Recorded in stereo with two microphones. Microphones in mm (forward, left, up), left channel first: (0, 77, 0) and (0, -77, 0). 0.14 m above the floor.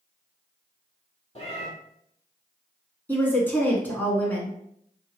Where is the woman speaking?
10° left (ahead or behind), 1.1 m.